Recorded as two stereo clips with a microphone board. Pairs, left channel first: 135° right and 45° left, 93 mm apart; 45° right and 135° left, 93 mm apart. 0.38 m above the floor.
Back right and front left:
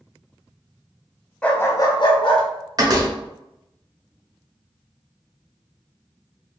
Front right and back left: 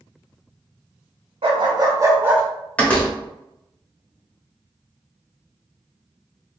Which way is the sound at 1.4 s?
145° left.